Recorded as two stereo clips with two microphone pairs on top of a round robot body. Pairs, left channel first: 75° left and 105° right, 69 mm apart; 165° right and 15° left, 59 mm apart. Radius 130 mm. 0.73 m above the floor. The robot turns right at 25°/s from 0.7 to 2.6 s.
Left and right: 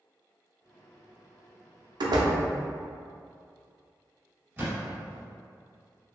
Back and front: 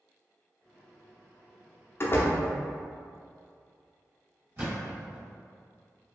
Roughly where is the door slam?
Behind right.